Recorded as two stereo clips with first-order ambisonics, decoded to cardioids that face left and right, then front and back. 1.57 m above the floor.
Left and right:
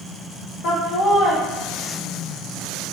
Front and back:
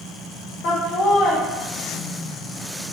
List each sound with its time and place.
0.6 s laughter: 45° left, 0.9 m